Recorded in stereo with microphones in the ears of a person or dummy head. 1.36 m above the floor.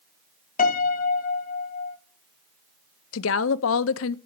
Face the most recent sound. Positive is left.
turn(degrees=65)  # may be behind; listen again after turning